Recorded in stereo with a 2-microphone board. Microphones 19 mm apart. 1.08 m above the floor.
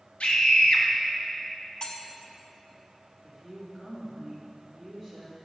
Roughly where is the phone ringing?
I don't hear a phone ringing.